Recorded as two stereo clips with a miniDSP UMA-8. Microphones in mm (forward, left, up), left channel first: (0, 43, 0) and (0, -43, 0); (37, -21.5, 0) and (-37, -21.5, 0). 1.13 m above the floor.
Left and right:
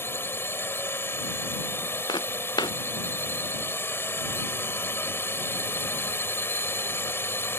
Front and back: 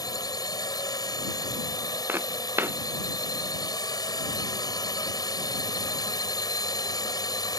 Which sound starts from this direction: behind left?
Footsteps, at 2.1 s.